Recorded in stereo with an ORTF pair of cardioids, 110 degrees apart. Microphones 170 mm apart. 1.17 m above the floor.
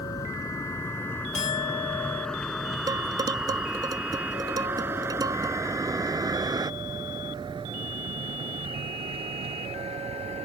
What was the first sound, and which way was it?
A vehicle, 20° left.